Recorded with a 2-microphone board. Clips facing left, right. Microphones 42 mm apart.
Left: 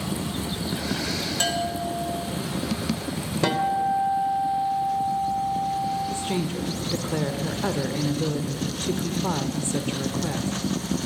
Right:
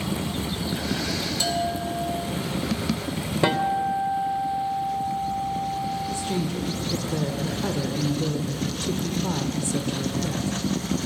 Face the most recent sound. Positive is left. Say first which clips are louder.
# even
turn(degrees=30)  # may be behind; listen again after turning